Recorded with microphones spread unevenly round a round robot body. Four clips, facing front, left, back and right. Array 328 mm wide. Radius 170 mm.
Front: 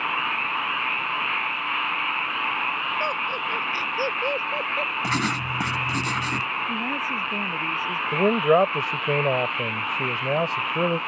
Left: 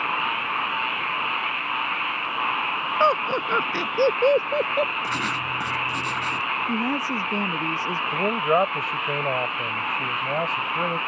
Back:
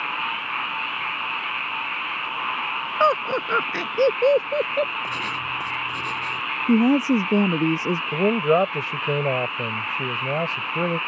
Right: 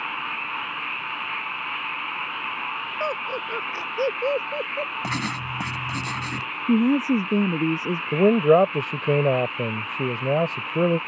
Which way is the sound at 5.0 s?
40° right.